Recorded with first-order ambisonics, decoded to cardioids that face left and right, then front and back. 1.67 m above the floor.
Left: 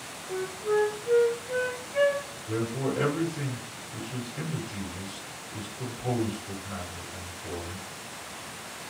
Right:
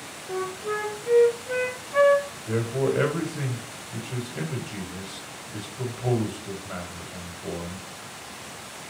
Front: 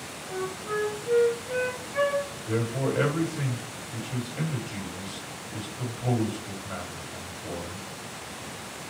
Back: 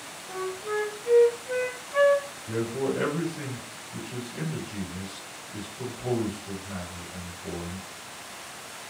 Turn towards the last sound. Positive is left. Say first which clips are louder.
# right 4 dB, back 2 dB
turn(degrees=-65)